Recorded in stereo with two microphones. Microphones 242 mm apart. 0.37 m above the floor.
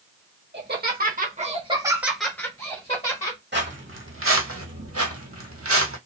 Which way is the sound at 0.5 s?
45° right (ahead or behind).